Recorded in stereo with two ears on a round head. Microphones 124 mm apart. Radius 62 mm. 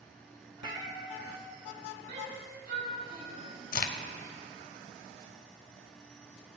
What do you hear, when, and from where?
0.6 s a cat meowing: 30° right (ahead or behind), 1.4 m
2.1 s a shout: 75° right (ahead or behind), 5 m
3.7 s a crack: 70° left (ahead or behind), 0.7 m